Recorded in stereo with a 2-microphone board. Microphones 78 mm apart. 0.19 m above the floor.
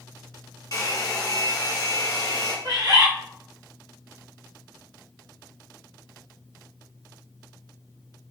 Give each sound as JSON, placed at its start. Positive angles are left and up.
{"t": 0.7, "sound": "a hair dryer", "side_deg": 50, "distance_m": 0.8}
{"t": 2.6, "sound": "a bird", "side_deg": -55, "distance_m": 0.7}